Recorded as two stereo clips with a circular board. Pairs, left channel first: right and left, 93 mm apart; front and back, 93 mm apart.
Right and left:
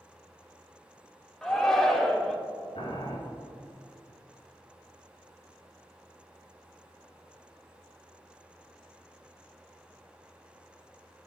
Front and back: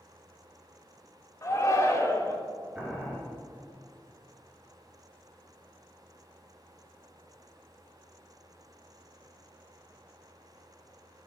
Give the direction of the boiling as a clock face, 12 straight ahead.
3 o'clock.